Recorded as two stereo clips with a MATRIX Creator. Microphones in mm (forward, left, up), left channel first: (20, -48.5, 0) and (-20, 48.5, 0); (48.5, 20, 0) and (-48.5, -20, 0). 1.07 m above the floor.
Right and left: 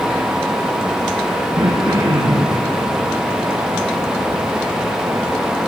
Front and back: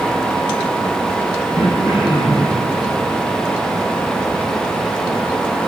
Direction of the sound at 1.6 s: 60° left.